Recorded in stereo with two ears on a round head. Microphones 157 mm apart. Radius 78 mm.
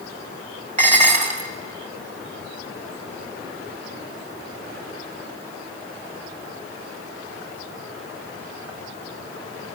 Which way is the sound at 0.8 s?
45° right (ahead or behind).